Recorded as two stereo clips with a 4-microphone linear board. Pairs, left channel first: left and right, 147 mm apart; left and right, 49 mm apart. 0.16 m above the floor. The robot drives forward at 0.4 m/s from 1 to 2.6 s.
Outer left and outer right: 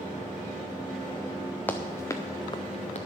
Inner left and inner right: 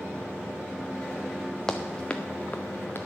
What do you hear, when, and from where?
1.7 s running footsteps: 15° left (ahead or behind), 1.4 m; by 3.0 s 50° left (ahead or behind), 0.9 m